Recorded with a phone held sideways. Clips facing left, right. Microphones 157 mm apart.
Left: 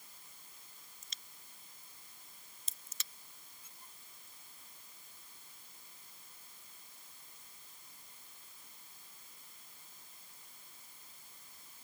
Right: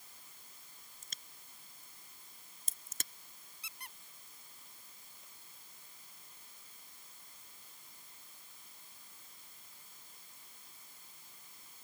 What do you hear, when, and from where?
1.0 s a crack: 50° right (ahead or behind)
3.6 s a squeak: 90° right